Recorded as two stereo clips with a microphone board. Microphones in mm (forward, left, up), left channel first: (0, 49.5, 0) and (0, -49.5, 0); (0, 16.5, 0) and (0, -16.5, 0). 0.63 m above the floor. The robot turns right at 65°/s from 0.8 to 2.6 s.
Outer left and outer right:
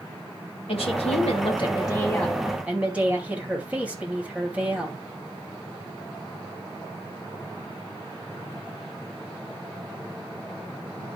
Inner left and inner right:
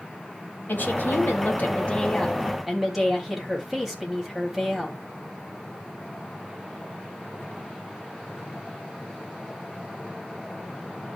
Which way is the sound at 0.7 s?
75° left.